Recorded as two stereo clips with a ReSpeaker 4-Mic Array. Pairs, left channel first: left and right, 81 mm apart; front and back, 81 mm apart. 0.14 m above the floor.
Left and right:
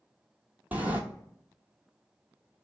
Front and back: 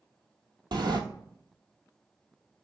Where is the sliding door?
160° right, 0.9 m.